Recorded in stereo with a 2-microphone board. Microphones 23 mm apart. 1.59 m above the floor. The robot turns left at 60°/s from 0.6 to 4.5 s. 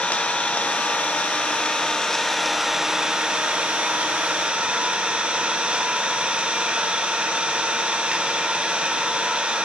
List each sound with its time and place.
0.0 s an engine running: 115° left, 0.9 m; by 9.7 s 120° right, 0.9 m